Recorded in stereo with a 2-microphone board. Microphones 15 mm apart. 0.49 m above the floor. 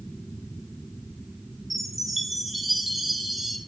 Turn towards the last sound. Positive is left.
turn(degrees=-10)  # may be behind; listen again after turning